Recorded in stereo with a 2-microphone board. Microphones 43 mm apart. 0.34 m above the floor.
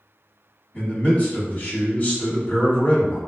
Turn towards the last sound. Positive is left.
turn(degrees=25)  # may be behind; listen again after turning